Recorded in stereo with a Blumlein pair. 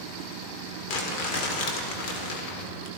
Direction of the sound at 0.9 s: 40° left.